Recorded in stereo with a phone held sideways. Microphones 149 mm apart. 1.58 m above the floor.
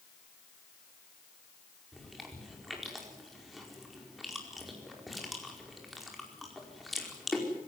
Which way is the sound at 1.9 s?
Centre (ahead or behind).